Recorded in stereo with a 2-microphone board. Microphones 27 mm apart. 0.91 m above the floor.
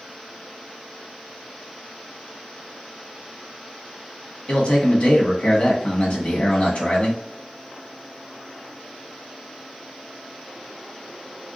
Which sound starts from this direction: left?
A man speaking, at 4.5 s.